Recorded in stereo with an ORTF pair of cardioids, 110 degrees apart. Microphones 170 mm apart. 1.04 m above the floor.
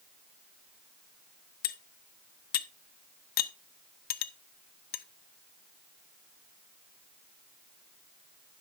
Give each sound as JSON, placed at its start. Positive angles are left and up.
{"t": 1.6, "sound": "cutlery clinking", "azimuth_deg": 65, "distance_m": 0.7}